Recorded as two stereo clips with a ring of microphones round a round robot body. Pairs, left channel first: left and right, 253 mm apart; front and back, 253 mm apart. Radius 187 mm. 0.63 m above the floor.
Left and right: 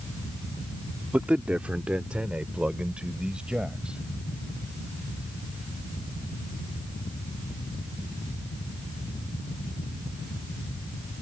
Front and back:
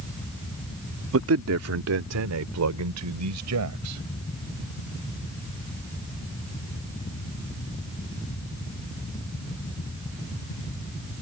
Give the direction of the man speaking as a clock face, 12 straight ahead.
6 o'clock.